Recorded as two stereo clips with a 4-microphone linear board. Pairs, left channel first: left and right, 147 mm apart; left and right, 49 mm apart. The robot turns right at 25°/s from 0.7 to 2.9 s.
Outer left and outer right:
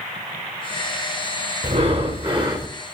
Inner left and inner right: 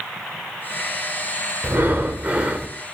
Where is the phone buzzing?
I don't hear a phone buzzing.